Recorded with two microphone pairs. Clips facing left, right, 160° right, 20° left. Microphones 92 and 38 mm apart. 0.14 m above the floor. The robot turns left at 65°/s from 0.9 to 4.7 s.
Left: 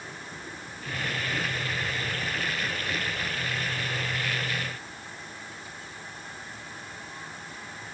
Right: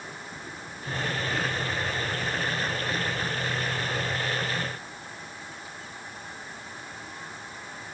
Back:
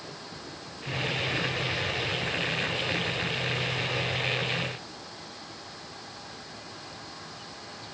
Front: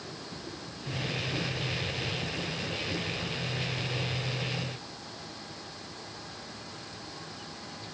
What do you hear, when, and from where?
Only background noise.